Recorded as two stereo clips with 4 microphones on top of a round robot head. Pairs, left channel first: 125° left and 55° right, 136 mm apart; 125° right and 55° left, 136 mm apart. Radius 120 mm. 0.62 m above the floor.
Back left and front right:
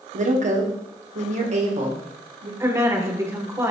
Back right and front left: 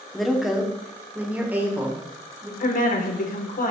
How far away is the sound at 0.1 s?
About 1.7 m.